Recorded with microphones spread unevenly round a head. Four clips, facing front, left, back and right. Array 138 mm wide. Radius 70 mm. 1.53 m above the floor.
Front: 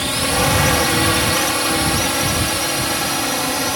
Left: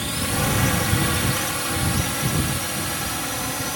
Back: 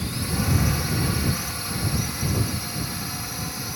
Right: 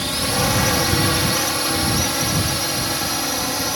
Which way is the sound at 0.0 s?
15° right.